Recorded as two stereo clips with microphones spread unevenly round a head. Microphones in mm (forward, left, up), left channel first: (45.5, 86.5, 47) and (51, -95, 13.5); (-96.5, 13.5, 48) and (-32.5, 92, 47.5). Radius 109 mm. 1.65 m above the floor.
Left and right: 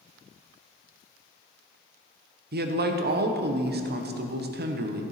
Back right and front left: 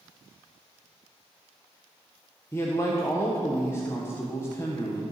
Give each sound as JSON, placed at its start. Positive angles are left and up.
{"t": 2.5, "sound": "a man speaking", "azimuth_deg": -55, "distance_m": 1.3}